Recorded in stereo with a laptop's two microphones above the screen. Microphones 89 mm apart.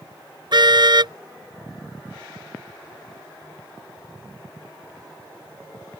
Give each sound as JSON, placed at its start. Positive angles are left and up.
{"t": 0.5, "sound": "a car horn", "side_deg": -55}